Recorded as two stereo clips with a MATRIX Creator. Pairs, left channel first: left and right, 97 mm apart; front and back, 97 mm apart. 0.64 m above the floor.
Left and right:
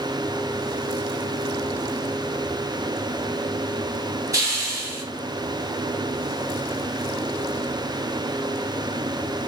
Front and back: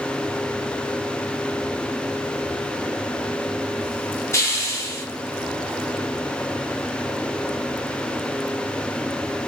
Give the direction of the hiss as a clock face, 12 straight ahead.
2 o'clock.